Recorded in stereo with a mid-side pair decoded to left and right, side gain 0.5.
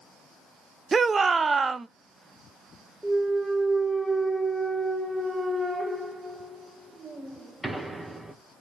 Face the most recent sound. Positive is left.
turn(degrees=-15)